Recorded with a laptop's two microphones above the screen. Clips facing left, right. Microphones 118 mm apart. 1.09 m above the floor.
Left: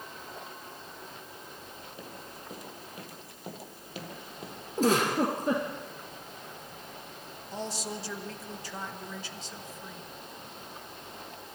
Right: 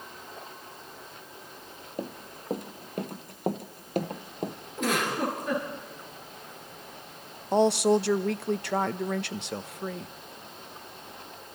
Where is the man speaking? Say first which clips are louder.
Right 16 dB; 70° right (ahead or behind), 0.8 m.